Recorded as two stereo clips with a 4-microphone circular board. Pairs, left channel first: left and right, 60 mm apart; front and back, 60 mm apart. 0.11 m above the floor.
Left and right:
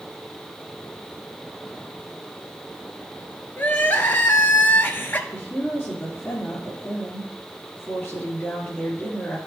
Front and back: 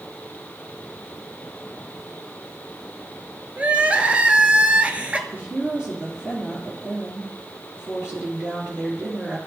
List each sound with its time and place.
3.6 s crying: 125° left, 0.8 m
5.3 s a woman speaking: 120° left, 2.5 m